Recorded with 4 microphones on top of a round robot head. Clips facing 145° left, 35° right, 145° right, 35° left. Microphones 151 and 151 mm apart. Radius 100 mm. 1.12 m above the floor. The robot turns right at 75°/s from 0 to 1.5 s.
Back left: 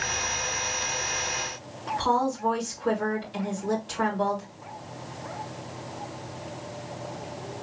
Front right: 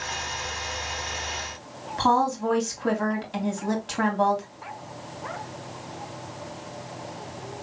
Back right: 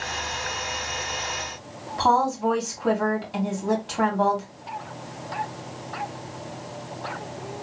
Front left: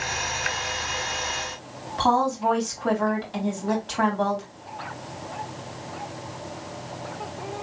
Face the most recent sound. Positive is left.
turn(degrees=-60)